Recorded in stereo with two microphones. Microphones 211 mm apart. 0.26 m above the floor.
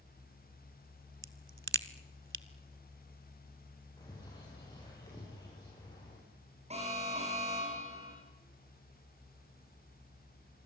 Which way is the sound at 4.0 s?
20° left (ahead or behind).